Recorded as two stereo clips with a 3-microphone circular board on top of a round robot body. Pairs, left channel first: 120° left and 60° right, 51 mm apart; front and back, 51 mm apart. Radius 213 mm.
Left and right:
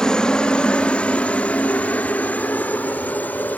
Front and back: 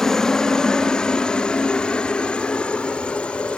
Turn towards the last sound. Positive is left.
turn(degrees=65)